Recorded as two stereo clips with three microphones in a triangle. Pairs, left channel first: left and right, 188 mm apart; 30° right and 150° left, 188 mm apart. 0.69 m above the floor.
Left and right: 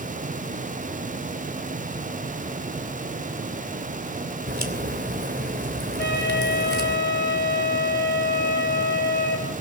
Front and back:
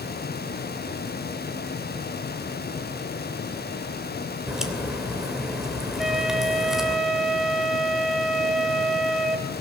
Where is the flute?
60° left, 2.5 m.